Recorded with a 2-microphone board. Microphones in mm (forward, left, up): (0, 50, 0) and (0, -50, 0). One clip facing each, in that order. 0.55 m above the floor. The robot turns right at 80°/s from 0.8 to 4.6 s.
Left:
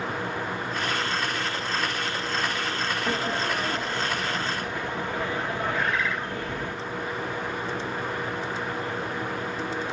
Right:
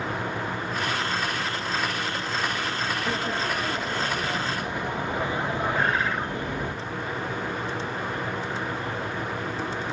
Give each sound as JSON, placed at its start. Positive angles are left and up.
{"t": 3.1, "sound": "a sliding door", "side_deg": 15, "distance_m": 1.2}
{"t": 5.7, "sound": "a bird", "side_deg": -40, "distance_m": 2.0}